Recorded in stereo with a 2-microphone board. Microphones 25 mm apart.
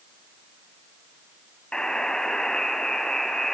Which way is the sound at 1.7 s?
35° left (ahead or behind).